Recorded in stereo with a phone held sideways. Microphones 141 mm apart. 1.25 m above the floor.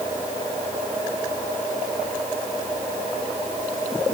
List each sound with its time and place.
Only background noise.